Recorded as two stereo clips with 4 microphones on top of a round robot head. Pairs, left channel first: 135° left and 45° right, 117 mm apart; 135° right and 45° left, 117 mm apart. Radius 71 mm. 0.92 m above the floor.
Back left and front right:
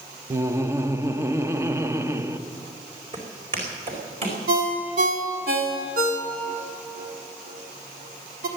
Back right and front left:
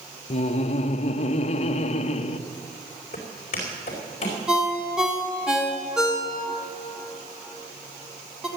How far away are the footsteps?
About 4.5 m.